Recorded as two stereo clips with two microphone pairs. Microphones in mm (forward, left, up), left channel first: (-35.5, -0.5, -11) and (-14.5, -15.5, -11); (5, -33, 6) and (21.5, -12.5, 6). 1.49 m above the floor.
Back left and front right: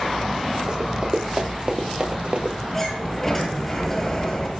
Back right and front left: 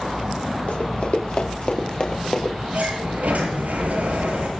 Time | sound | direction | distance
0.7 | running footsteps | 95° right | 4 m
2.7 | a sliding door | 75° left | 7.5 m